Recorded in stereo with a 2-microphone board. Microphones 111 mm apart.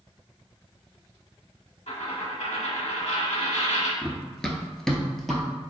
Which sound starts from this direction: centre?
Running footsteps, at 4.0 s.